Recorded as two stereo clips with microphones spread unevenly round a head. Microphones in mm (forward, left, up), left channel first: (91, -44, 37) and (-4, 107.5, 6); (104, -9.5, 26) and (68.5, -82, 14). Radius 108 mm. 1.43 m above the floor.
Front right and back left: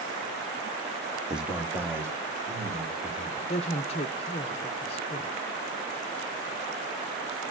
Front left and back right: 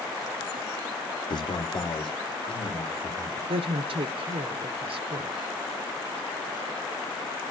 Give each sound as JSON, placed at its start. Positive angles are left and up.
{"t": 1.3, "sound": "a man speaking", "azimuth_deg": 35, "distance_m": 1.2}
{"t": 3.5, "sound": "a woman speaking", "azimuth_deg": -120, "distance_m": 0.6}